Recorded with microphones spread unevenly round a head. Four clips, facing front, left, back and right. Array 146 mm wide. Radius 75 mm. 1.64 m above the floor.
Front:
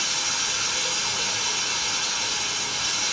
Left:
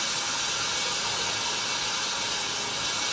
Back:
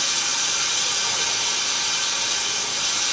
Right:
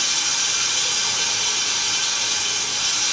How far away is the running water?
About 1.2 m.